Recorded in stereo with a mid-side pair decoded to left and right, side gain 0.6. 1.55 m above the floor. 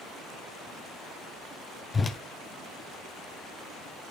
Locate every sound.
1.9 s a whoosh: 25° left, 1.0 m